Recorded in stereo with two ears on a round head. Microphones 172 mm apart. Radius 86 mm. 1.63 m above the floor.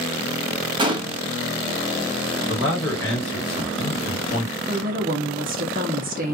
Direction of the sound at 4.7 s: 50° right (ahead or behind).